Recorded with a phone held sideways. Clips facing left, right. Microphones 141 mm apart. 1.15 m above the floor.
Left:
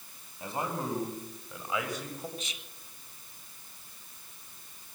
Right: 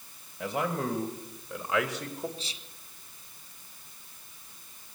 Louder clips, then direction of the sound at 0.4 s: Right 4 dB; 80° right.